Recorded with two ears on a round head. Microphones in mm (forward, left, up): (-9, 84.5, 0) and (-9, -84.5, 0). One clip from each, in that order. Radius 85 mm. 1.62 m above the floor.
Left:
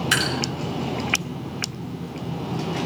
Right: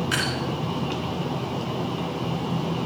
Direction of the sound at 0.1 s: 70° left (ahead or behind).